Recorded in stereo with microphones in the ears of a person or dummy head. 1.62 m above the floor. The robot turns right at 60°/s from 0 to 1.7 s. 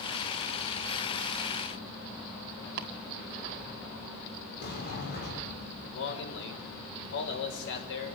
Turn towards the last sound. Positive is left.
turn(degrees=70)  # may be behind; listen again after turning